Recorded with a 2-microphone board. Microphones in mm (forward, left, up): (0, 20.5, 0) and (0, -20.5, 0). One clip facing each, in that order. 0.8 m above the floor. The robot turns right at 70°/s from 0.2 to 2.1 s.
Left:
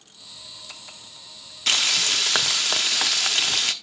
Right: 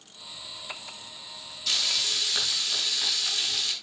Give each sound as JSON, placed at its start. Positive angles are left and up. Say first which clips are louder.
{"t": 1.7, "sound": "frying", "louder": "left 6 dB", "azimuth_deg": 65, "distance_m": 1.0}